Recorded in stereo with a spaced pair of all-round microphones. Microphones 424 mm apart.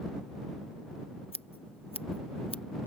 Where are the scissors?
15° left (ahead or behind).